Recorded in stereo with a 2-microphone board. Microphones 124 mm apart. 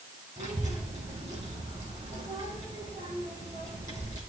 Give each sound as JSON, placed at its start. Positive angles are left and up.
{"t": 0.4, "sound": "a child speaking", "side_deg": -65, "distance_m": 4.0}